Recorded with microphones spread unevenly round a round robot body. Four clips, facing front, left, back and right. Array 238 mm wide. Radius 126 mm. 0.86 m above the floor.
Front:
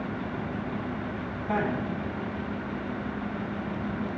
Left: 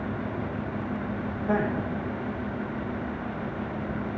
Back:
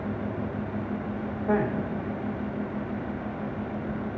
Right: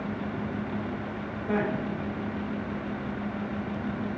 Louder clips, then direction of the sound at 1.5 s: Left 1 dB, back 2 dB; 165° left.